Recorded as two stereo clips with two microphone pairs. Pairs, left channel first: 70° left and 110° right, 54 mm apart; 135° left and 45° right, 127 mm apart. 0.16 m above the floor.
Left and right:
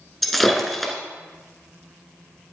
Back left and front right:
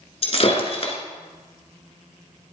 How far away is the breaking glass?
About 1.5 m.